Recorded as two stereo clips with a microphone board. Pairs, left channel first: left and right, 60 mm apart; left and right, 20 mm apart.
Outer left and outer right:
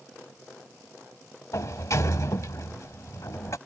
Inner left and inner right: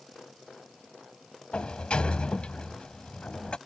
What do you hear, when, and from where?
1.5 s a sliding door: 60° left (ahead or behind)